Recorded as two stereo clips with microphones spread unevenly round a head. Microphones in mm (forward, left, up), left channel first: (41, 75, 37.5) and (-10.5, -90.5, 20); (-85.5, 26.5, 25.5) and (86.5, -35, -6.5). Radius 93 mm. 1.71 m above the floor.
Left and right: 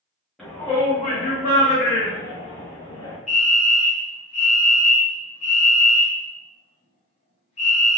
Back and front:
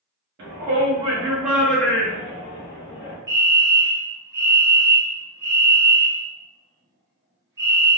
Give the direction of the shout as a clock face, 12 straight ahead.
12 o'clock.